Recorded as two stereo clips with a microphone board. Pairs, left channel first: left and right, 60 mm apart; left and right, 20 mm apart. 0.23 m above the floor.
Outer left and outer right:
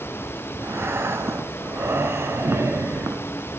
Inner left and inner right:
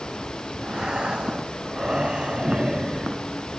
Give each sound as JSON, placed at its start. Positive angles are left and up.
{"t": 0.6, "sound": "breathing", "side_deg": -45, "distance_m": 1.1}